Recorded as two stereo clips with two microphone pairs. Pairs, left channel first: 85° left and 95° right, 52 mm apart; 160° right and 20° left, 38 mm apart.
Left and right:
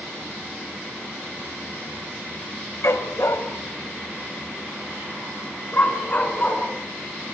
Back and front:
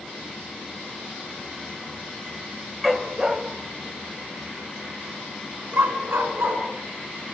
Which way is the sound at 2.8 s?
105° left.